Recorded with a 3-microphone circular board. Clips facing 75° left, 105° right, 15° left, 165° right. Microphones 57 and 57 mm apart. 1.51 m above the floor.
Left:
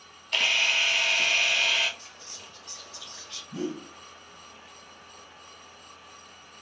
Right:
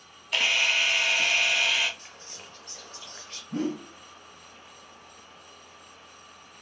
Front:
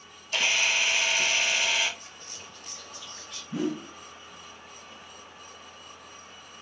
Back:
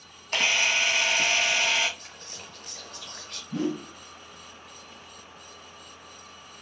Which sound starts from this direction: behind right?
Whispering, at 2.0 s.